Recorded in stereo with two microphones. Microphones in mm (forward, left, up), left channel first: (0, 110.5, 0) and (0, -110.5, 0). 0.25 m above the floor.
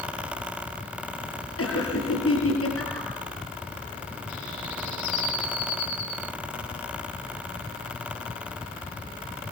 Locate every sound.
1.6 s laughter: 75° left (ahead or behind), 6 m